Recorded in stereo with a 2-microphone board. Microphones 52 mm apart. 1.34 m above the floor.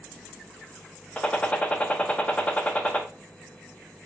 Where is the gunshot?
25° left (ahead or behind), 0.7 m.